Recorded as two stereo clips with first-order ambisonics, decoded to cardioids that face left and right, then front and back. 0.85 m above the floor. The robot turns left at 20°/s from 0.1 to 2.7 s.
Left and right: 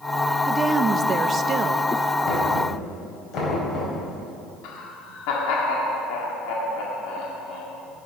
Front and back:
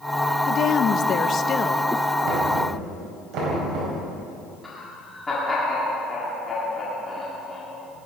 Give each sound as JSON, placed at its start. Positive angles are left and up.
{"t": 0.5, "sound": "a woman speaking", "azimuth_deg": -25, "distance_m": 0.5}
{"t": 2.2, "sound": "knocking", "azimuth_deg": 150, "distance_m": 5.0}
{"t": 4.6, "sound": "laughter", "azimuth_deg": 80, "distance_m": 1.8}